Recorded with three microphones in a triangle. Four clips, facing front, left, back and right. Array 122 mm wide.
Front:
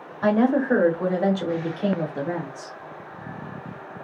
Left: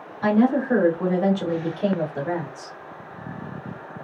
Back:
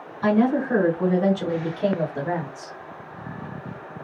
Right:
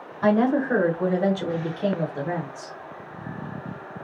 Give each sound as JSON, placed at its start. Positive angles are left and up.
{"t": 0.2, "sound": "a woman speaking", "azimuth_deg": -25, "distance_m": 1.4}